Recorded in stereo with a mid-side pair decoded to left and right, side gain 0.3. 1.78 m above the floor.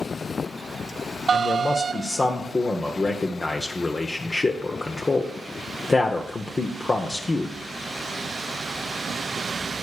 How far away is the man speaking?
About 0.8 m.